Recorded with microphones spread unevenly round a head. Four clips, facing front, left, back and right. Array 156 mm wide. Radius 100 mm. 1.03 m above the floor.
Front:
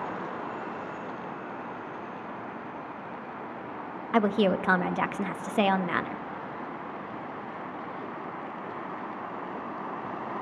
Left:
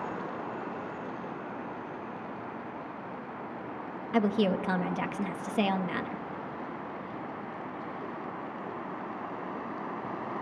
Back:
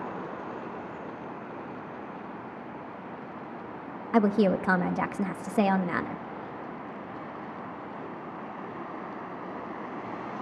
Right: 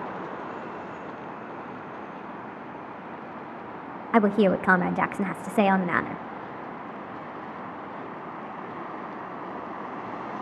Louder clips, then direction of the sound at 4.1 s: Right 6 dB, back 1 dB; 60° right.